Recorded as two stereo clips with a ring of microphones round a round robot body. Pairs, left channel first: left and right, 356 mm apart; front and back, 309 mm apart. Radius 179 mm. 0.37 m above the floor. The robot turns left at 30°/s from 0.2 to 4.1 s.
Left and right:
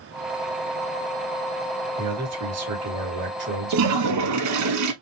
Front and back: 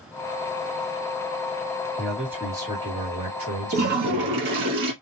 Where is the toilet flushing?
125° right, 1.0 m; by 4.9 s 135° right, 1.0 m.